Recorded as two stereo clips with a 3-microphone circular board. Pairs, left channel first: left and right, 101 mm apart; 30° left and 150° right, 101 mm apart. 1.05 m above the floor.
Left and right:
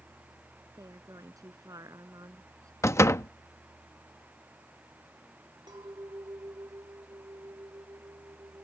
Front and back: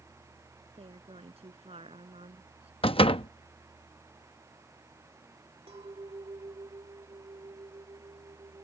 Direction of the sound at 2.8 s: 35° left.